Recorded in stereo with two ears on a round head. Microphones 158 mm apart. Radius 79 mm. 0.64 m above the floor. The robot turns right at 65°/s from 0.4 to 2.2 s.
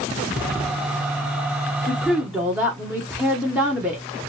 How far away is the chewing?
No chewing in this recording.